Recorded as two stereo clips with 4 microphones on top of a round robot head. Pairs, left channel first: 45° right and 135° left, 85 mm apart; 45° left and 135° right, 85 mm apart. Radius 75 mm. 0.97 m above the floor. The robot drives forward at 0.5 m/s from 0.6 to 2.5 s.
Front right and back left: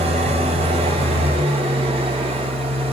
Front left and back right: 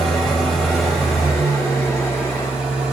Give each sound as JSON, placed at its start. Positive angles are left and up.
{"t": 0.0, "sound": "an engine running", "azimuth_deg": 130, "distance_m": 3.5}